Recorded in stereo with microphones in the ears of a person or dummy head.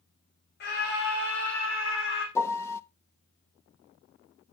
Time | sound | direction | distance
0.6 | a scream | 50° left (ahead or behind) | 3 m
2.4 | a piano | 15° left (ahead or behind) | 0.8 m